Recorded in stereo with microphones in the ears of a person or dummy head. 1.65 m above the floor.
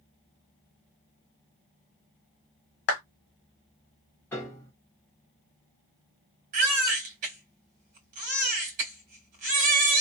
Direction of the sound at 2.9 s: 70° left (ahead or behind).